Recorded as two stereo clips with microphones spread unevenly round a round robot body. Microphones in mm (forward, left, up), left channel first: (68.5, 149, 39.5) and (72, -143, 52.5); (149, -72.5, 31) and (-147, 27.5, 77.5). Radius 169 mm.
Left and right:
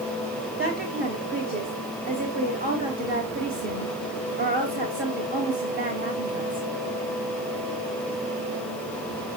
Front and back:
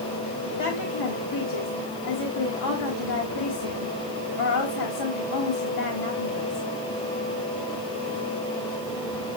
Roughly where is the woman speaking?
Ahead right.